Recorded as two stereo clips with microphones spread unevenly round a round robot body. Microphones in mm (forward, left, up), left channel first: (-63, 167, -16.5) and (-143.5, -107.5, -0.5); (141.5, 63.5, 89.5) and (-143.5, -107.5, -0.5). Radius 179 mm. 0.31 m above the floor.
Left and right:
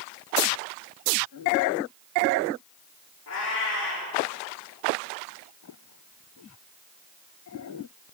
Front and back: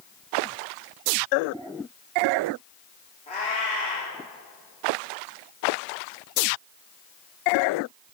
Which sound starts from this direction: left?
A cat meowing, at 3.3 s.